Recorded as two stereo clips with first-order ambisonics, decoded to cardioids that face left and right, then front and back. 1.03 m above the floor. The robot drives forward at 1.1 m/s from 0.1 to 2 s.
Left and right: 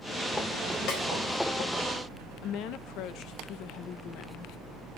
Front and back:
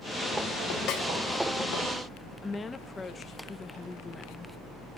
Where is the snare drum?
50° left, 4 m; by 1.0 s 55° left, 4 m.